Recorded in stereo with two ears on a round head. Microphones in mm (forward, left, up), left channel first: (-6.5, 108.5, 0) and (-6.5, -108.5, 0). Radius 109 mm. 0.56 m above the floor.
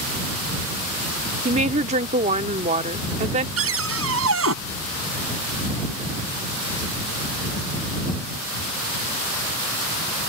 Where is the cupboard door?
65° right (ahead or behind).